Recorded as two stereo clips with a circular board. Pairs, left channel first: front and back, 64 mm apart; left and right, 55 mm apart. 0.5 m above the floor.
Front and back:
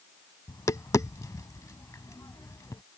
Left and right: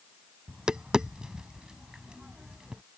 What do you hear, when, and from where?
0.5 s tapping: 15° right